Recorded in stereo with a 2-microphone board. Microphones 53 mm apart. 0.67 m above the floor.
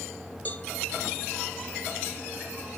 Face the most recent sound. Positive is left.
turn(degrees=30)  # may be behind; listen again after turning